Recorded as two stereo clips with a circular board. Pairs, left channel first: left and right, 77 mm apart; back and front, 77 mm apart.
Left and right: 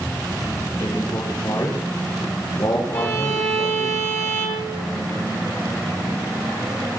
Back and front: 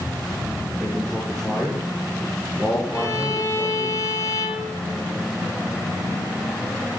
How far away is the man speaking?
About 7 m.